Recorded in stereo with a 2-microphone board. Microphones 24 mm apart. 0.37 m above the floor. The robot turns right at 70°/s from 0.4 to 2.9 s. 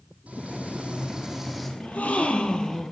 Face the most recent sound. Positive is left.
turn(degrees=160)